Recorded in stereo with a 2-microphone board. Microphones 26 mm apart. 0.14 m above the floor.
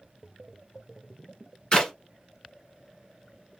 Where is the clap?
30° left (ahead or behind), 1.4 m.